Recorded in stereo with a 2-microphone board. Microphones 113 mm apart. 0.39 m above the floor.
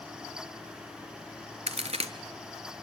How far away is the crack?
About 1.1 m.